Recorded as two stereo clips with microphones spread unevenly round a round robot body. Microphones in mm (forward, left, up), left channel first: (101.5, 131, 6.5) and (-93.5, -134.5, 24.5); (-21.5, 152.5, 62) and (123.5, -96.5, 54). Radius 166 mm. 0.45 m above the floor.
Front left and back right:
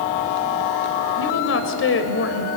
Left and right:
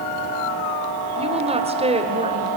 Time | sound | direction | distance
1.2 | a woman speaking | 5° left | 2 m